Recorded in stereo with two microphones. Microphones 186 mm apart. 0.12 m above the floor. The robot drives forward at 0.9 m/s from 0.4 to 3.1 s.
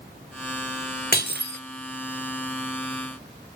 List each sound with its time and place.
1.1 s breaking glass: 55° left (ahead or behind), 0.7 m; by 1.6 s 65° left (ahead or behind), 0.7 m